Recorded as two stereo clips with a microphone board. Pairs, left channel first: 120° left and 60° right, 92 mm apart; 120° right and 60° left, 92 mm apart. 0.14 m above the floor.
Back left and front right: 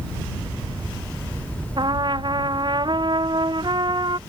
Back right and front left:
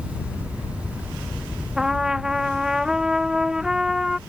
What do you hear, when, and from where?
1.8 s a trumpet: 25° right